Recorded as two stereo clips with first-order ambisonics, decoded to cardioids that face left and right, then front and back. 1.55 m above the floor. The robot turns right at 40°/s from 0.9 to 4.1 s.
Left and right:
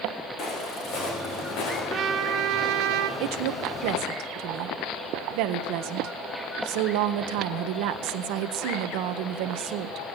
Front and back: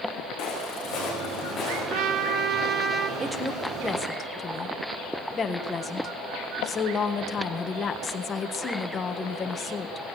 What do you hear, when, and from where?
0.4 s footsteps: 35° left, 6.5 m; by 1.8 s 75° left, 7.5 m
1.9 s a trumpet: 150° right, 1.8 m; by 3.1 s 105° right, 1.8 m
3.2 s a woman speaking: 105° right, 1.4 m; by 10.0 s 70° right, 1.4 m